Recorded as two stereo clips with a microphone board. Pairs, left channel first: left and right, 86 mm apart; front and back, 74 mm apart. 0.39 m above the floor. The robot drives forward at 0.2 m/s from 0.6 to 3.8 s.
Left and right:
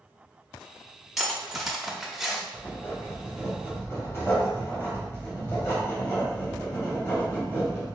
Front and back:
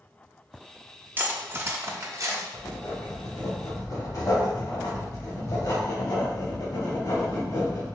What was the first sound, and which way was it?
Cutlery clinking, 175° right.